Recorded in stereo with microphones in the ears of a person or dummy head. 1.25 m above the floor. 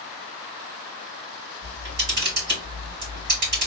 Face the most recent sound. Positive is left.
turn(degrees=-50)  # may be behind; listen again after turning